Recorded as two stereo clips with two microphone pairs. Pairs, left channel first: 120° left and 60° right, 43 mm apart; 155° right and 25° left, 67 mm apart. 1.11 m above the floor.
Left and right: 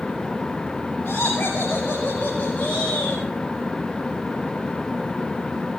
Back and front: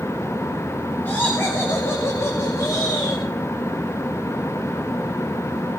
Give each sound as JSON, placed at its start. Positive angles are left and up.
{"t": 1.1, "sound": "laughter", "azimuth_deg": 145, "distance_m": 2.5}